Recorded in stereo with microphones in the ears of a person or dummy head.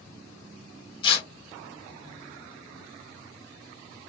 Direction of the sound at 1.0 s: 30° left (ahead or behind).